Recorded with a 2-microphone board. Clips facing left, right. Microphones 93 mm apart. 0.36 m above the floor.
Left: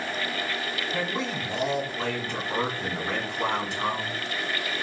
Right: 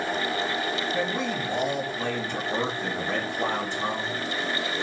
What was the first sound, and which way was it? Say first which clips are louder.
A man speaking: right 2 dB; 75° left (ahead or behind).